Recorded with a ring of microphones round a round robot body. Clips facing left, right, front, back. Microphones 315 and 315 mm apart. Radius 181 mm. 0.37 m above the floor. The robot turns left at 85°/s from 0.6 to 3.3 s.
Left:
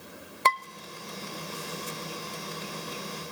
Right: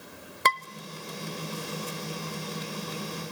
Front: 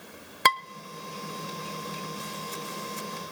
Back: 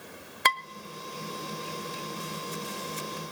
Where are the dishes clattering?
25° right, 0.9 m.